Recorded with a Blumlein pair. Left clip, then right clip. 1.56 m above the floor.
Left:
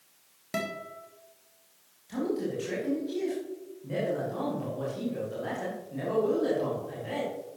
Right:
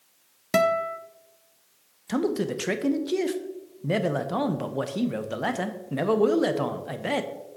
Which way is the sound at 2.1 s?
55° right.